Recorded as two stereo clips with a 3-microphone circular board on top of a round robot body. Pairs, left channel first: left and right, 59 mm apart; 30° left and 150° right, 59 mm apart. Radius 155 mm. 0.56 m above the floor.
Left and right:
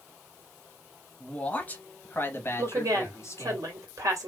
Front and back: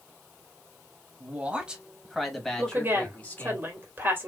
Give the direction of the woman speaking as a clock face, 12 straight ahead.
3 o'clock.